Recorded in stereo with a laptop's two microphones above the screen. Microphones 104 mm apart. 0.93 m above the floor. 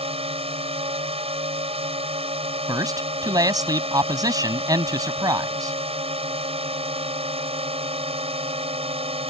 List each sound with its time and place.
0.0 s a drone: 65° right (ahead or behind)
2.7 s a man speaking: 35° right (ahead or behind)